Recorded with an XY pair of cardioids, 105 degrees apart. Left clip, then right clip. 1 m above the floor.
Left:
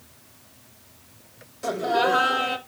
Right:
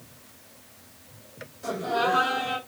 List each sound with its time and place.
1.6 s laughter: 55° left, 5 m